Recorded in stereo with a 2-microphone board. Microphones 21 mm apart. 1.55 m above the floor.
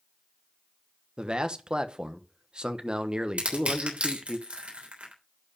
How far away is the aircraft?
I don't hear an aircraft.